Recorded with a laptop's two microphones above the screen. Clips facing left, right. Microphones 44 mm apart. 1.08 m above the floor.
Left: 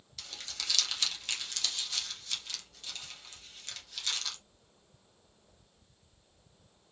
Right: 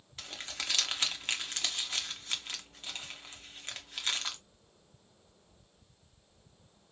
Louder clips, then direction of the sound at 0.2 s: Right 3 dB; 30° right (ahead or behind).